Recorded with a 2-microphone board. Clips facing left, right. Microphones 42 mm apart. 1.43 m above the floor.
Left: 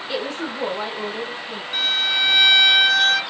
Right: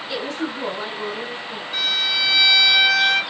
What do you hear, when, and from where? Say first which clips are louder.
0.1 s a woman speaking: even; 40° left (ahead or behind), 1.9 m; by 1.6 s 50° left (ahead or behind), 1.1 m
1.7 s a violin: left 1 dB; 40° left (ahead or behind), 1.8 m